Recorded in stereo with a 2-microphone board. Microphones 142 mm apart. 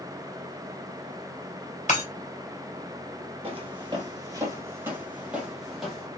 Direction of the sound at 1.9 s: 60° left (ahead or behind).